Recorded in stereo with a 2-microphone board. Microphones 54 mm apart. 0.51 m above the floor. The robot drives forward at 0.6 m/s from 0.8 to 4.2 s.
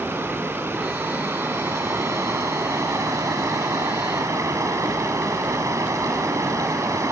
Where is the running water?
50° right (ahead or behind), 3 m; by 7.1 s 80° right, 2 m.